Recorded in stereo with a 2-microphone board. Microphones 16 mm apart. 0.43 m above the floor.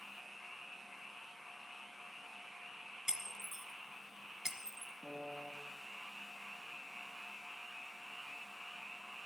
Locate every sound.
3.1 s breaking glass: 25° right (ahead or behind), 1.4 m
5.0 s a piano: 5° left (ahead or behind), 2.5 m